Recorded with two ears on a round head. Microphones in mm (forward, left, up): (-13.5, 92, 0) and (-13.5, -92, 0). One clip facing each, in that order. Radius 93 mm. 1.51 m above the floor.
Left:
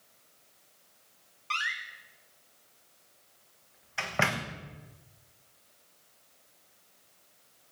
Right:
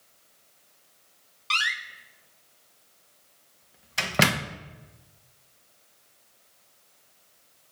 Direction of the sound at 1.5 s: 45° right (ahead or behind).